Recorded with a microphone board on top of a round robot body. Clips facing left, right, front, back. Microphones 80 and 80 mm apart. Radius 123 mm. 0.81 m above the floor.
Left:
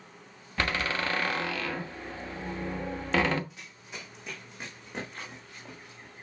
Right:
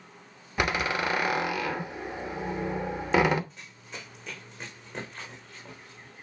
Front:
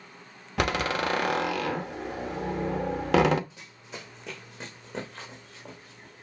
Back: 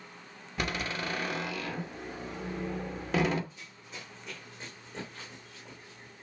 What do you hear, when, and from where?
0.6 s a door slam: 15° right, 1.1 m
3.5 s running footsteps: 5° left, 3 m; by 6.2 s 10° left, 4.5 m